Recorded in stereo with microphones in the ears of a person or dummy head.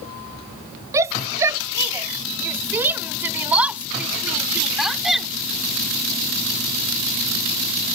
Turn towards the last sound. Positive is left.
turn(degrees=0)  # may be behind; listen again after turning